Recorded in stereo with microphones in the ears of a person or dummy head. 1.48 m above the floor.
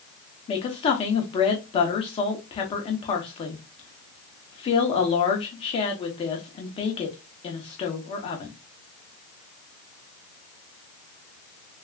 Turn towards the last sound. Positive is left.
turn(degrees=25)  # may be behind; listen again after turning